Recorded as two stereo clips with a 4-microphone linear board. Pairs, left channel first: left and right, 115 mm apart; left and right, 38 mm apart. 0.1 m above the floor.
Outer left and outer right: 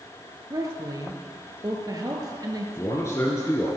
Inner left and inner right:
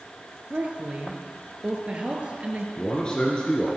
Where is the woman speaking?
35° right (ahead or behind), 1.4 m.